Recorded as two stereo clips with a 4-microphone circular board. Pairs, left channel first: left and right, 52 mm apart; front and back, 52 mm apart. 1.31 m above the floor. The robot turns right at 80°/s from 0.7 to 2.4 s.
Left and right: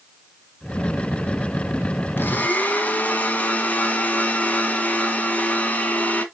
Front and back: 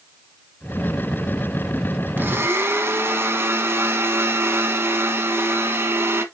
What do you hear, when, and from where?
2.2 s a blender: 130° left, 1.5 m; by 6.2 s 145° left, 1.5 m